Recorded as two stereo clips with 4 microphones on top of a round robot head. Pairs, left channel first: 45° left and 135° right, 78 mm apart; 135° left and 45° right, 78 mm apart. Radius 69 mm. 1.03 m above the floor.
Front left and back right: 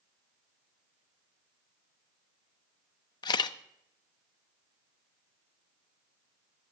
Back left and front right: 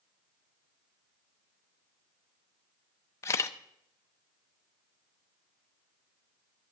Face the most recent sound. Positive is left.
turn(degrees=80)